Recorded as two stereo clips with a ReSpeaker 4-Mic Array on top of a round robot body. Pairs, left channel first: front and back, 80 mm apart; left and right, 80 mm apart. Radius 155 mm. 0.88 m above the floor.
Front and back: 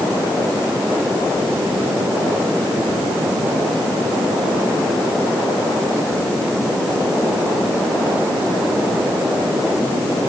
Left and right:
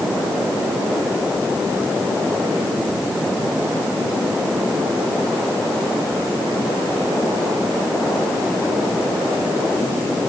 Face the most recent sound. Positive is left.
No sound to turn to.